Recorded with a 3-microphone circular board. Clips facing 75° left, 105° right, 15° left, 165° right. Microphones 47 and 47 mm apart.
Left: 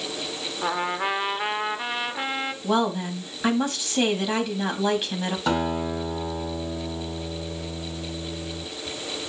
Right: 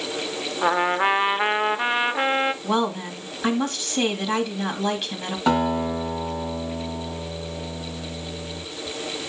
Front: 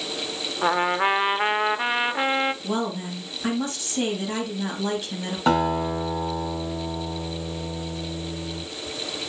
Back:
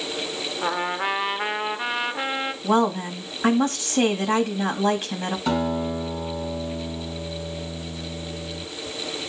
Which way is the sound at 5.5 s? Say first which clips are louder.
Right 5 dB, front 4 dB; 35° right.